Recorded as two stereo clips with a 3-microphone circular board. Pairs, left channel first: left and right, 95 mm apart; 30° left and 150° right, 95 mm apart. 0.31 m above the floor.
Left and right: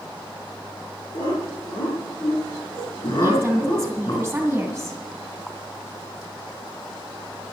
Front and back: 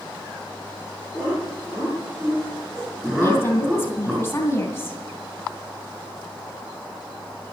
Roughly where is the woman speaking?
Ahead.